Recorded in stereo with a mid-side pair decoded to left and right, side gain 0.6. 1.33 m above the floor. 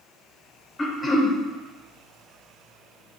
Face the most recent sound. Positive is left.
turn(degrees=25)